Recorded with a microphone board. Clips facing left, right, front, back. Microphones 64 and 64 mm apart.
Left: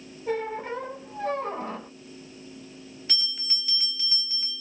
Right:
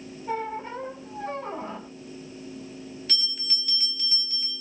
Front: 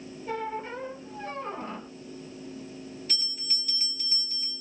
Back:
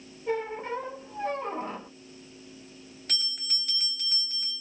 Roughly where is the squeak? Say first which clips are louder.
Left 1 dB, back 3 dB; behind left.